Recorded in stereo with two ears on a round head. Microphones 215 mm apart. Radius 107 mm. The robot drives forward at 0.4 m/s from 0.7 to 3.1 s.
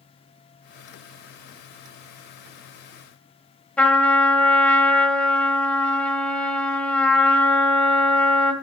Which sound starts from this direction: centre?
A trumpet, at 3.8 s.